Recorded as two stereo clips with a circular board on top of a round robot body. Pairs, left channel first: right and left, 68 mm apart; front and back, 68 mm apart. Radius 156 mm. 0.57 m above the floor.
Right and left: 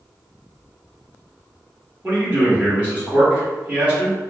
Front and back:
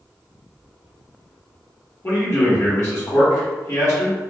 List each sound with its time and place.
2.0 s a man speaking: 25° left, 1.6 m